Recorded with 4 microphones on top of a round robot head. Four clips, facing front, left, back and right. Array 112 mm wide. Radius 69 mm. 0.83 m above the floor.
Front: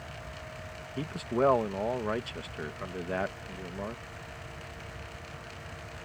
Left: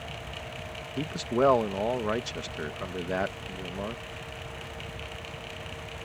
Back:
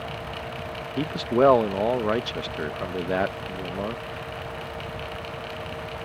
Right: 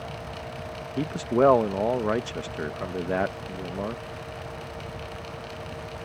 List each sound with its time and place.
1.0 s a man speaking: 150° right